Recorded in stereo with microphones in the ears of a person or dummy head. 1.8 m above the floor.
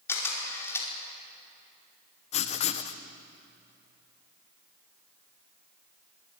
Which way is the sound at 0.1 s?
15° left (ahead or behind).